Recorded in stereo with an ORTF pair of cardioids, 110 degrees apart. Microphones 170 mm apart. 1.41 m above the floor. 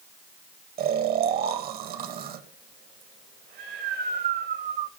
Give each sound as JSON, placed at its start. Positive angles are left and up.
{"t": 0.8, "sound": "snoring", "azimuth_deg": -65, "distance_m": 1.5}